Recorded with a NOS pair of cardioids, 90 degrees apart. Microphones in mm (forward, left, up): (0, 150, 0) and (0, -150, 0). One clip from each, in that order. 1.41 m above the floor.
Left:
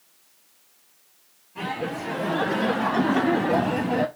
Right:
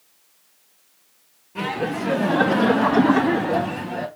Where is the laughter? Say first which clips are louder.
Right 4 dB; 65° right, 1.6 m; by 4.1 s 35° left, 0.8 m.